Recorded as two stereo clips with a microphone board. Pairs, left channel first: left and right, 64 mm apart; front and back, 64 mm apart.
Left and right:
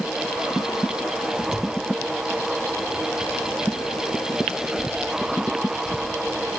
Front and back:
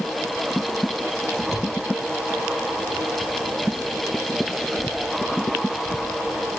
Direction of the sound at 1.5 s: Straight ahead.